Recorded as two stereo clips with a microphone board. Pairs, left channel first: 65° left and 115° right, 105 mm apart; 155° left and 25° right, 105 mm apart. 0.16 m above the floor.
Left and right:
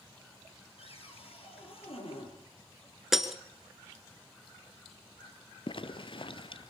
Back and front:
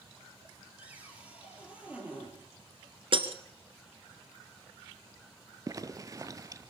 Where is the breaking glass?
25° right, 1.5 m.